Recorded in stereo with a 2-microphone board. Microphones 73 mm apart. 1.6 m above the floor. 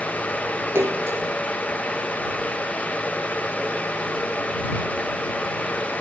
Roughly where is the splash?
Right.